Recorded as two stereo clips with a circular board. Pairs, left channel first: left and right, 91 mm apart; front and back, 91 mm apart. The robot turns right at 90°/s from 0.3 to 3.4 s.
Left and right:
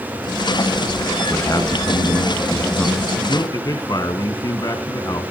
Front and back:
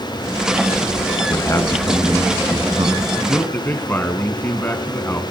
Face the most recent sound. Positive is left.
turn(degrees=60)